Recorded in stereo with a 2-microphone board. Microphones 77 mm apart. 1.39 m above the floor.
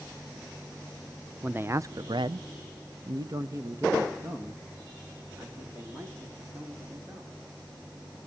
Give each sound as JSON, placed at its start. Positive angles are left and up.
{"t": 1.4, "sound": "a man speaking", "side_deg": -20, "distance_m": 0.7}